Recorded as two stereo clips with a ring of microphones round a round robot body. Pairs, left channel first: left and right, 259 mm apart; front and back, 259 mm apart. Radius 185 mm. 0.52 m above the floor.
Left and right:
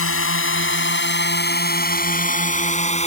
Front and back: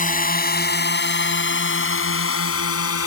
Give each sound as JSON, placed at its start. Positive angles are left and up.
{"t": 0.0, "sound": "a drone", "azimuth_deg": 55}